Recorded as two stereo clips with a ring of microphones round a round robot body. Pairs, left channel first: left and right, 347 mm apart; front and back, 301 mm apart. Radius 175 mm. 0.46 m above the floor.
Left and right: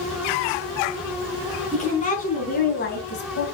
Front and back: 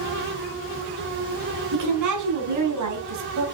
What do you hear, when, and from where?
1.7 s a woman speaking: 160° left, 5.5 m; by 3.5 s 150° left, 3 m